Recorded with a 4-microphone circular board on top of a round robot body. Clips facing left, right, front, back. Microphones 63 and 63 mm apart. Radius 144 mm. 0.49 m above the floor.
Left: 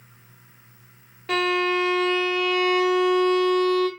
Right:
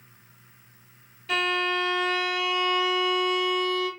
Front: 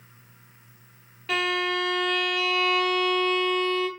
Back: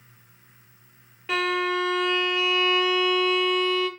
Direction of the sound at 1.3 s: 105° left.